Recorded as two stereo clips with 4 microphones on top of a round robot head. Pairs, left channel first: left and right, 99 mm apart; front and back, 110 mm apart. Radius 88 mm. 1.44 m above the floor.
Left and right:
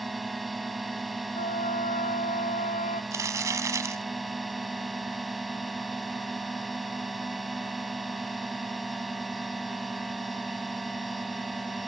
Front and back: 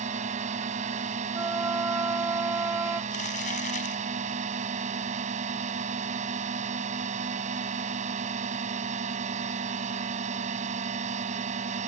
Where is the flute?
115° left.